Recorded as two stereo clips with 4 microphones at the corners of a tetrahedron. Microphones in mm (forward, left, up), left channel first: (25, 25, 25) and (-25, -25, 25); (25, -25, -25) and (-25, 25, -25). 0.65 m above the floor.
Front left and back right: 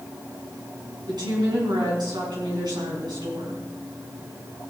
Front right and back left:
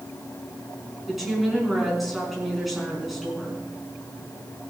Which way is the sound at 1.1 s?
135° right.